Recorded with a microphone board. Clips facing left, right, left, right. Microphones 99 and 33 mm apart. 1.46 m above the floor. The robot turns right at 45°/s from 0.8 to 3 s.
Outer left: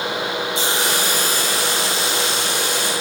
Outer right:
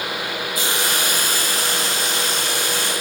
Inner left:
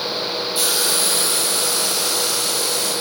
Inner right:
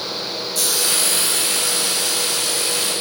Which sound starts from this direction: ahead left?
A hiss, at 0.6 s.